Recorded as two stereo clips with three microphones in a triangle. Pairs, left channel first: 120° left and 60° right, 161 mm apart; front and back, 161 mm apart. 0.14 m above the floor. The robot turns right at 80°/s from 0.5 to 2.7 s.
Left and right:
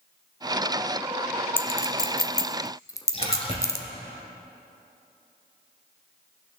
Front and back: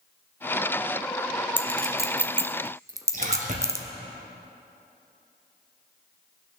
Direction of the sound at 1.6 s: 60° left.